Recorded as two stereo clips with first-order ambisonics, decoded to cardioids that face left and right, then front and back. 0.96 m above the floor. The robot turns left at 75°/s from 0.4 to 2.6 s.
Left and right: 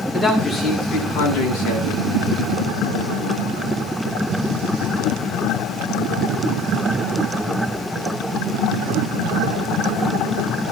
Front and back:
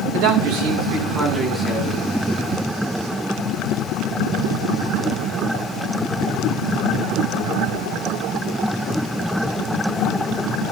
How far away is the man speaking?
About 8.5 m.